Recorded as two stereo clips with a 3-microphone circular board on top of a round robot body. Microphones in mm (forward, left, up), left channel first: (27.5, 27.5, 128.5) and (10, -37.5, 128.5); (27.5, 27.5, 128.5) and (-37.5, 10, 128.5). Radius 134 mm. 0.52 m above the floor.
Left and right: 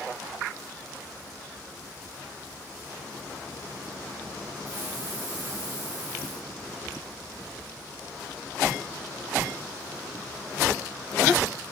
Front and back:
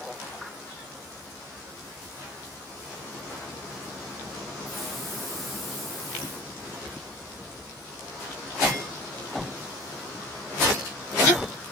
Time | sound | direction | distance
4.7 | a hiss | 75° right | 6 m